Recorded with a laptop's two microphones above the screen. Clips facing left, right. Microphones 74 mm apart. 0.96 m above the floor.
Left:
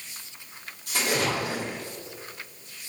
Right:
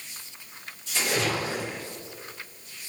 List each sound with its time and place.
0.9 s a splash: 60° left (ahead or behind), 3 m